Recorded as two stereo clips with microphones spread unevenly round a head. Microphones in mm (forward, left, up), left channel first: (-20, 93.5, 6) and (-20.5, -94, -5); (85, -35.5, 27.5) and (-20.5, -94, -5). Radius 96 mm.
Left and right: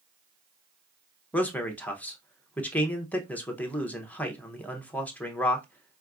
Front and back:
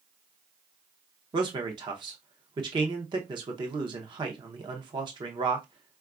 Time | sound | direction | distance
1.3 | a man speaking | 175° left | 0.6 m